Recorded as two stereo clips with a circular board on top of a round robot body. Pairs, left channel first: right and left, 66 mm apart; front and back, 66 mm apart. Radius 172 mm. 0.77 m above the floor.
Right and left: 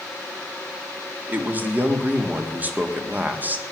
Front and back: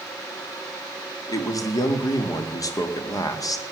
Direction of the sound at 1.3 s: 25° left.